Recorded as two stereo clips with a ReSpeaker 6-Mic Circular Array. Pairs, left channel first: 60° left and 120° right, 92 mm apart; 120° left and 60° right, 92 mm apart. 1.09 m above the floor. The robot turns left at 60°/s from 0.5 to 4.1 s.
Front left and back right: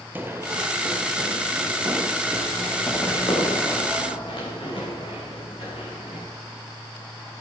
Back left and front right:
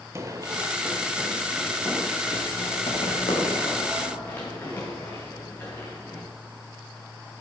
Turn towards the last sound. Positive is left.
turn(degrees=50)